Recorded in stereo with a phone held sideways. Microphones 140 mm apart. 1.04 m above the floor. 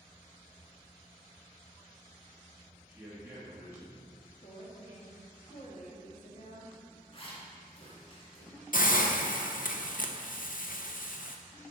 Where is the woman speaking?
60° left (ahead or behind), 2 m.